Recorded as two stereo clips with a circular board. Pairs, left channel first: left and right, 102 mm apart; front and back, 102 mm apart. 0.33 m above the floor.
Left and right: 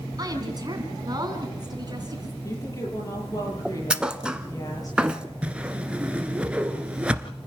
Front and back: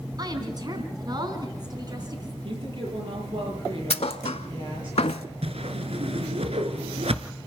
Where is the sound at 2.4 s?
140° left, 9.5 m.